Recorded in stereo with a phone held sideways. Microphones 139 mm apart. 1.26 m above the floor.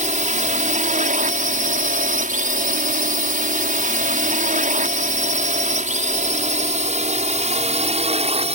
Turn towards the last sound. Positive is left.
turn(degrees=-50)  # may be behind; listen again after turning